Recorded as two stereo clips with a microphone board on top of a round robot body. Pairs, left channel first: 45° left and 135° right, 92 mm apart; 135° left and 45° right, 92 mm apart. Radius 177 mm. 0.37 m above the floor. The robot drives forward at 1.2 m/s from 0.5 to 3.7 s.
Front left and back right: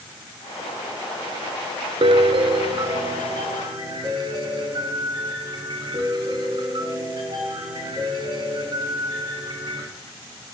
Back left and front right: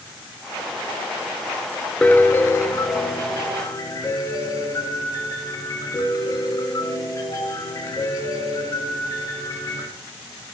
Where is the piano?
150° right, 0.8 m; by 9.9 s 170° right, 2.5 m.